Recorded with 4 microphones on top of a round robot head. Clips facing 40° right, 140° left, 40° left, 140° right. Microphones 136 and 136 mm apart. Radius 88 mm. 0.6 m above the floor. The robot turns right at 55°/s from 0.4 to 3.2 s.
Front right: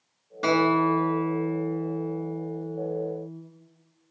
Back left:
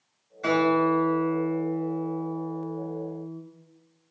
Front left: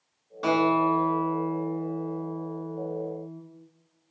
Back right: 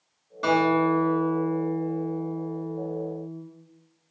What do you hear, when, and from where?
0.4 s a guitar: 50° right, 1.1 m; by 3.4 s 105° left, 1.1 m